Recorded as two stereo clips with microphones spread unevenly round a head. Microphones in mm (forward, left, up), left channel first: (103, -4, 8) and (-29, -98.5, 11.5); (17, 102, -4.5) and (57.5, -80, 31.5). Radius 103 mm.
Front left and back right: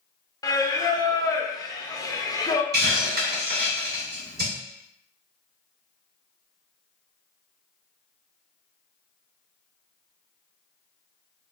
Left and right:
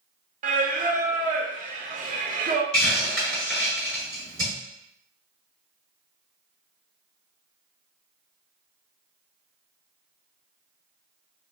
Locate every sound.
0.4 s singing: 30° right, 0.5 m
2.7 s a hiss: 165° right, 1.4 m